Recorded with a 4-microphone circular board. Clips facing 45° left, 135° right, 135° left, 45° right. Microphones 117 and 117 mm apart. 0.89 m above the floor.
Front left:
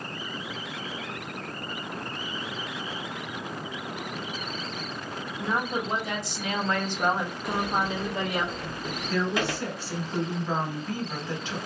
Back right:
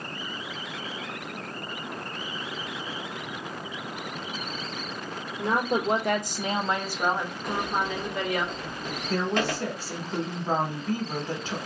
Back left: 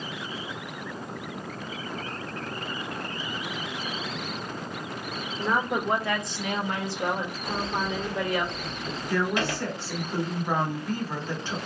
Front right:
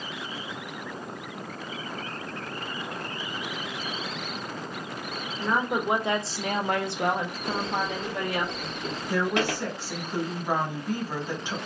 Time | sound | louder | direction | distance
5.4 | a woman speaking | back right 4 dB, even | 140° right | 0.8 m
7.5 | a sliding door | front left 1 dB, even | 40° right | 1.3 m
9.1 | a woman speaking | back right 1 dB, front right 1 dB | 115° right | 1.1 m